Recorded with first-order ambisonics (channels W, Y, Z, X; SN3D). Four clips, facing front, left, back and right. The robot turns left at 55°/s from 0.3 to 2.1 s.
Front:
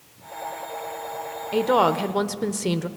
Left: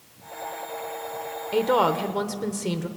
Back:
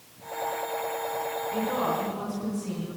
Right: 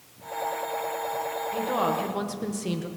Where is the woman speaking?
40° left, 0.8 m; by 2.9 s 10° left, 0.8 m.